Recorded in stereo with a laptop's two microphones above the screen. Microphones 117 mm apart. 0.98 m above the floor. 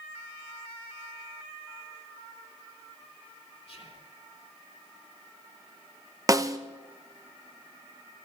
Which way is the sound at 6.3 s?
30° right (ahead or behind).